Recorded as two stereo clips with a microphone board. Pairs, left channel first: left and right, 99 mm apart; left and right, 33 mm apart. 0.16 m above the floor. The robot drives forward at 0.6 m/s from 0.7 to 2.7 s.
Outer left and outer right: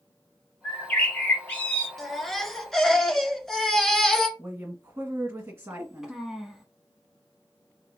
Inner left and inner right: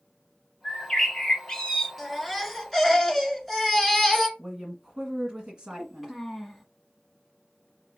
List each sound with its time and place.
0.6 s a bird: 10° left (ahead or behind), 2.5 m; by 1.9 s 15° left (ahead or behind), 1.8 m
2.0 s a baby crying: 5° left (ahead or behind), 1.5 m
4.4 s a woman speaking: 25° right (ahead or behind), 1.7 m
5.7 s a child speaking: 5° right (ahead or behind), 0.8 m